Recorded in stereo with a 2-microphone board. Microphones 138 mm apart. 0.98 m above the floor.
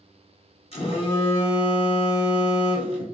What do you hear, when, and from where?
0.7 s a phone buzzing: 45° left (ahead or behind), 1.1 m